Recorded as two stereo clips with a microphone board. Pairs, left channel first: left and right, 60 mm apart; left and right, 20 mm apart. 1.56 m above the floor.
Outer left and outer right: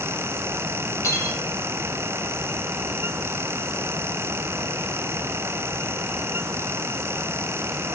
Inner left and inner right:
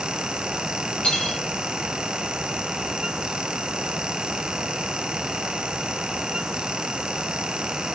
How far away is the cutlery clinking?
About 2.5 m.